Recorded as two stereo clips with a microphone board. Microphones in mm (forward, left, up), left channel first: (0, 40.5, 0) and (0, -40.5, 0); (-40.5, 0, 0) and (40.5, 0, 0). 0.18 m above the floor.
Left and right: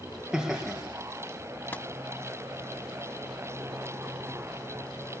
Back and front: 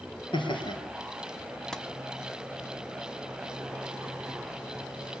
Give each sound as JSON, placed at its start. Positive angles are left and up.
{"t": 0.3, "sound": "laughter", "azimuth_deg": -175, "distance_m": 4.5}
{"t": 1.7, "sound": "tapping", "azimuth_deg": 110, "distance_m": 1.3}